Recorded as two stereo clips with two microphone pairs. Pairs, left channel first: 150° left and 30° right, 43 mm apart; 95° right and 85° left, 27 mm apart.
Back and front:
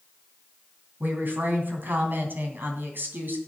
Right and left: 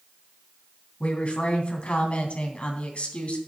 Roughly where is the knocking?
I don't hear knocking.